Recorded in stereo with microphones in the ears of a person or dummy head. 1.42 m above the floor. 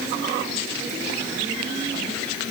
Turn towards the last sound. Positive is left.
No sound to turn to.